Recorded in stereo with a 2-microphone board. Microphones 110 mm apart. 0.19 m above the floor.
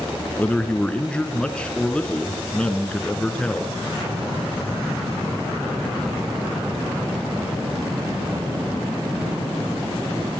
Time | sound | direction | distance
0.4 | a man speaking | 10° left (ahead or behind) | 2.5 m